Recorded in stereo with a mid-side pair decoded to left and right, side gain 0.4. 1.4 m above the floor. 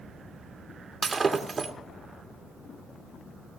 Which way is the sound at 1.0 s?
40° right.